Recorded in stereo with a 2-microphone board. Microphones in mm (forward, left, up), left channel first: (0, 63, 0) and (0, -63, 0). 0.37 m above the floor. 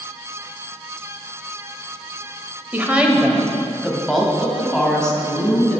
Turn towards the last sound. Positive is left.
turn(degrees=10)  # may be behind; listen again after turning